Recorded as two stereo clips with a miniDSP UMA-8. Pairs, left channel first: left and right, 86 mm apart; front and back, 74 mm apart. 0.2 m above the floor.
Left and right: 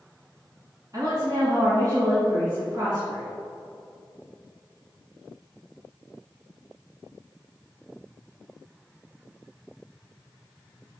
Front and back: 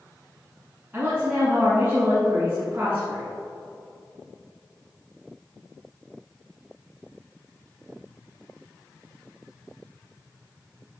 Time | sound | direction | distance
0.9 | a woman speaking | 125° right | 1.9 m